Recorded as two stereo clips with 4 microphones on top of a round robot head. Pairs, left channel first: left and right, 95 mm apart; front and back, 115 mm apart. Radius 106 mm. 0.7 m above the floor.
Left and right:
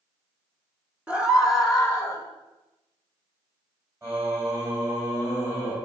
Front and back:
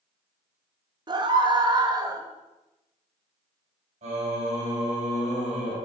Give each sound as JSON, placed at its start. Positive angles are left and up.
{"t": 1.1, "sound": "a scream", "azimuth_deg": -160, "distance_m": 1.2}
{"t": 4.0, "sound": "singing", "azimuth_deg": -155, "distance_m": 3.5}